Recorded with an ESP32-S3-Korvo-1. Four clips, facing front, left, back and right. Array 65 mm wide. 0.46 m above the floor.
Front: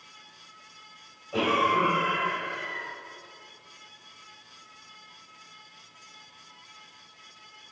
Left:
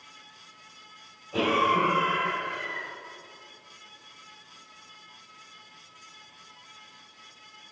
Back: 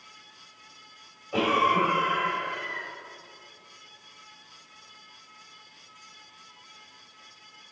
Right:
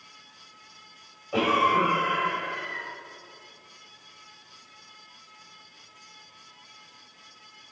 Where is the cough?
115° right, 2.5 m.